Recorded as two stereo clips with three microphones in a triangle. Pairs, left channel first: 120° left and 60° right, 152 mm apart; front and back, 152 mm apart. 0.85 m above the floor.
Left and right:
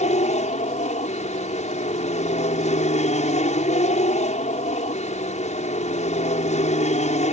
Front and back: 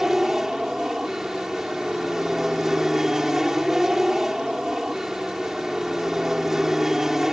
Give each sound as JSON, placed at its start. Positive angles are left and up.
{"t": 0.0, "sound": "an aircraft", "azimuth_deg": 95}